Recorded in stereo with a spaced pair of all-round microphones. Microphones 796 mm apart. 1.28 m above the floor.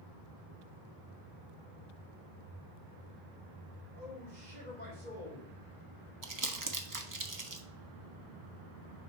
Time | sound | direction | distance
3.9 | a man speaking | 60° right (ahead or behind) | 3.5 m
6.2 | crumpling | 25° right (ahead or behind) | 0.7 m